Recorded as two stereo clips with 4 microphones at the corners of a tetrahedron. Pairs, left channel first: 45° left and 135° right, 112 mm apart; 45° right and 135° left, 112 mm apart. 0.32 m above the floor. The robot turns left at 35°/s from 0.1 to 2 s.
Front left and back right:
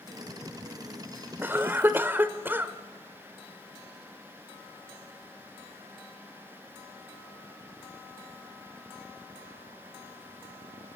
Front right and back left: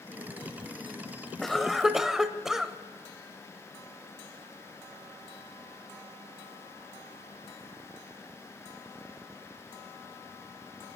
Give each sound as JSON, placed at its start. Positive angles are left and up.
{"t": 1.4, "sound": "a cough", "azimuth_deg": -130, "distance_m": 0.9}